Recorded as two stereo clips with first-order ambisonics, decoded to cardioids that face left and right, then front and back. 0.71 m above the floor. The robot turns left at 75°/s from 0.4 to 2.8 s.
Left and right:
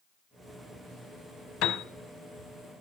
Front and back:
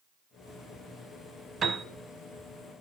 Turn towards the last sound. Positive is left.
turn(degrees=25)